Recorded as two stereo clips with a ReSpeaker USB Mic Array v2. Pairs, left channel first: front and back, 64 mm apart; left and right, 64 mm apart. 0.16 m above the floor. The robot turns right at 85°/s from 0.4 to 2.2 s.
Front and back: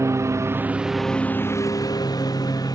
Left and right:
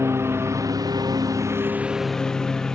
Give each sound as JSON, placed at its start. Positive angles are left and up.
{"t": 0.0, "sound": "a lawn mower", "azimuth_deg": -135}